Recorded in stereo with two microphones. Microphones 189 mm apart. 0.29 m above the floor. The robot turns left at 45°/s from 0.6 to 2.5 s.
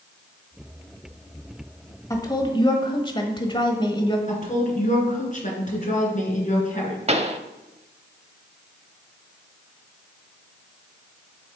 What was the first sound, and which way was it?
A woman speaking, 15° left (ahead or behind).